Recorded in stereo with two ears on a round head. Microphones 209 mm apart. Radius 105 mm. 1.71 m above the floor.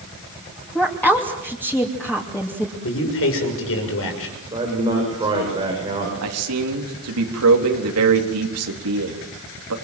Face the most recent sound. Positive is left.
turn(degrees=-70)  # may be behind; listen again after turning